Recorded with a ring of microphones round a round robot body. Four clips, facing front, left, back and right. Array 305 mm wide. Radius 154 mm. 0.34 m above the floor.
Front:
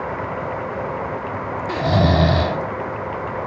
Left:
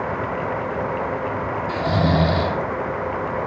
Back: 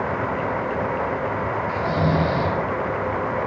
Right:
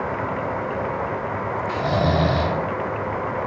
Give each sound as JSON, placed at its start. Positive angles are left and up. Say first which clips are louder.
{"t": 1.7, "sound": "snoring", "louder": "left 1 dB, front 6 dB", "azimuth_deg": 5, "distance_m": 0.6}